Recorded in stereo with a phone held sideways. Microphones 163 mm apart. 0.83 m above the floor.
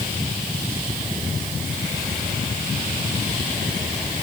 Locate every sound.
Only background noise.